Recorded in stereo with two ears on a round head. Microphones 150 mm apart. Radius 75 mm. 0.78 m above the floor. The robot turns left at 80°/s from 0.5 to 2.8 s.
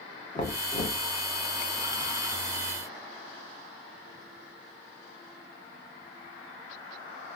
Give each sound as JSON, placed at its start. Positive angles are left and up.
{"t": 0.3, "sound": "knocking", "azimuth_deg": 145, "distance_m": 1.0}